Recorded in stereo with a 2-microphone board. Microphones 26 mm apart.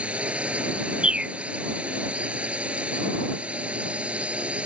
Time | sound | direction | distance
0.0 | a drone | 55° right (ahead or behind) | ?
1.0 | a bird | 45° right (ahead or behind) | ?